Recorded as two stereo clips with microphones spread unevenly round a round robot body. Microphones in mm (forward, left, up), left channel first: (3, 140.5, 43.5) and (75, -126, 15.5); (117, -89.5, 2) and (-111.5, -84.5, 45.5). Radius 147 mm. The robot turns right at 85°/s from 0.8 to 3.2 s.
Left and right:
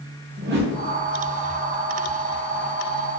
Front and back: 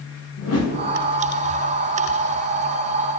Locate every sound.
0.4 s a whoosh: 20° right, 3 m